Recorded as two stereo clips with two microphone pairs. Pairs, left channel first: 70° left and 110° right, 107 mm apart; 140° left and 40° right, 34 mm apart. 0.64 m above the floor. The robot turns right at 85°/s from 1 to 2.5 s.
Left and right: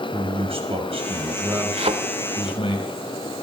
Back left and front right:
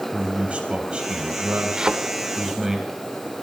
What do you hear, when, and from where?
0.1 s a man speaking: 95° right, 3.5 m; by 2.8 s 35° left, 3.5 m
1.8 s a thud: 115° right, 1.1 m; by 1.9 s 100° right, 1.1 m